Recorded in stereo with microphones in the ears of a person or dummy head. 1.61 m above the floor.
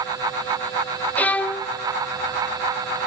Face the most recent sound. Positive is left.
turn(degrees=5)  # may be behind; listen again after turning